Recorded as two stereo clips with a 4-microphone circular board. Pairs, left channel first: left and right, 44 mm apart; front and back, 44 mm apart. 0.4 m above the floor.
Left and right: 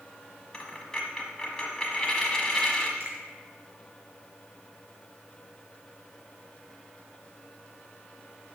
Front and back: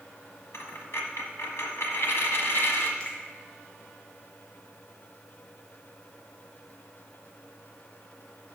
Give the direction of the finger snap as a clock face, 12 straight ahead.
2 o'clock.